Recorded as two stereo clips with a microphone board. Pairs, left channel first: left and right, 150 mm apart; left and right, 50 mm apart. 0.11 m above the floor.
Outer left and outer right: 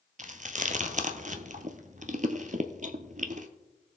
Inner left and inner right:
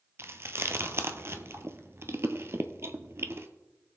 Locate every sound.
0.2 s chewing: 60° right (ahead or behind), 0.8 m